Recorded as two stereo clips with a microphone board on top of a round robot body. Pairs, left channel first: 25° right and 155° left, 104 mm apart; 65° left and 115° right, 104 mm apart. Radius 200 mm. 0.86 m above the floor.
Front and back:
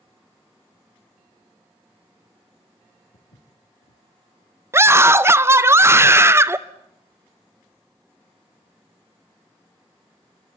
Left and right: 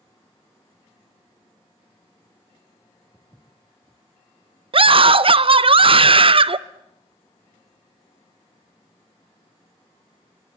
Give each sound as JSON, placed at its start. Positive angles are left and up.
{"t": 3.1, "sound": "footsteps", "azimuth_deg": -40, "distance_m": 4.0}
{"t": 4.7, "sound": "a scream", "azimuth_deg": -140, "distance_m": 0.8}